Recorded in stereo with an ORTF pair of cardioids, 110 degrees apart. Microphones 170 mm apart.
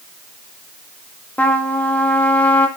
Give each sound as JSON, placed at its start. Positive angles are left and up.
{"t": 1.4, "sound": "a trumpet", "azimuth_deg": 10, "distance_m": 2.5}